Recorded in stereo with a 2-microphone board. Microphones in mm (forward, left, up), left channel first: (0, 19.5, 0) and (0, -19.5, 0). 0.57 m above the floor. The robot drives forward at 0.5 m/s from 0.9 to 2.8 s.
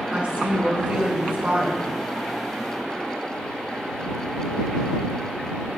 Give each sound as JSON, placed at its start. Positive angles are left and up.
{"t": 0.1, "sound": "a woman speaking", "side_deg": -35, "distance_m": 1.6}